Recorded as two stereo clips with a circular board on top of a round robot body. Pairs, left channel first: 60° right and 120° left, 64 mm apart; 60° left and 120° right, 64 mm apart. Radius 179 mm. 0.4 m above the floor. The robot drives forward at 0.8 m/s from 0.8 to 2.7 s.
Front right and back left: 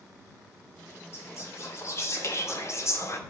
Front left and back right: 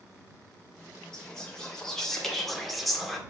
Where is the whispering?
15° right, 3 m; by 3.2 s 30° right, 1.9 m.